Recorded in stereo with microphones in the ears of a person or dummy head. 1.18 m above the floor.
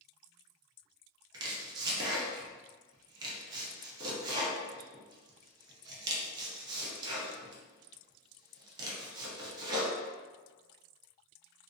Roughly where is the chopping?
Right.